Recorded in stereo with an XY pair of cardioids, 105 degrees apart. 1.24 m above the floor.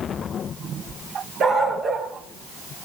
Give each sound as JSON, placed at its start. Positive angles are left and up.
{"t": 1.4, "sound": "a dog barking", "azimuth_deg": -55, "distance_m": 7.5}